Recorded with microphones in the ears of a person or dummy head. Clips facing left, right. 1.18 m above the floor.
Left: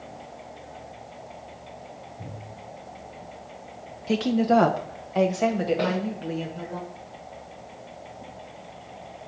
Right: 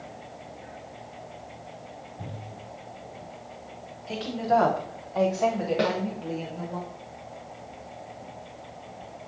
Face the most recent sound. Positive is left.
turn(degrees=-30)  # may be behind; listen again after turning